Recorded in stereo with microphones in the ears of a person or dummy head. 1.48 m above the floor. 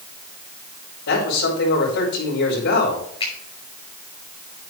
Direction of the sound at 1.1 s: 70° left (ahead or behind).